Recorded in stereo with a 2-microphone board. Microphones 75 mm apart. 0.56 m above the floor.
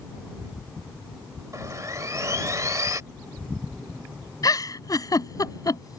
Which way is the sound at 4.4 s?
55° left (ahead or behind).